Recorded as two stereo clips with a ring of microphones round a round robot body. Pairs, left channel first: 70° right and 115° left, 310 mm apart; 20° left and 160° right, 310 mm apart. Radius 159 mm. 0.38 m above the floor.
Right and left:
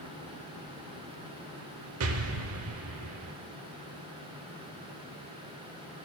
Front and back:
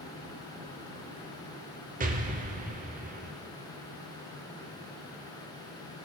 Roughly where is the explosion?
Behind left.